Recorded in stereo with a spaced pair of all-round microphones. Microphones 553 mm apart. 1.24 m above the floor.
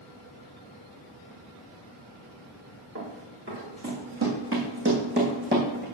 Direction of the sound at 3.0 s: 30° right (ahead or behind).